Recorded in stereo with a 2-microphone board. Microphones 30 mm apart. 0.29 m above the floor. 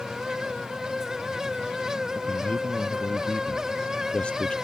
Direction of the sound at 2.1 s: 40° left (ahead or behind).